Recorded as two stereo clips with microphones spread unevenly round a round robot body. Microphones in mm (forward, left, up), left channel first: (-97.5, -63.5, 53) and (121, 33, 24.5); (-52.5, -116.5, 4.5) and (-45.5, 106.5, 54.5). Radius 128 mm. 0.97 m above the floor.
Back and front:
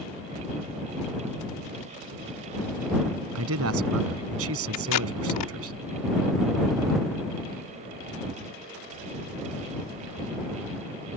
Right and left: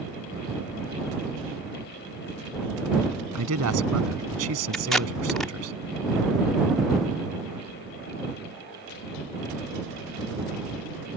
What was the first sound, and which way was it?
A man speaking, 55° left.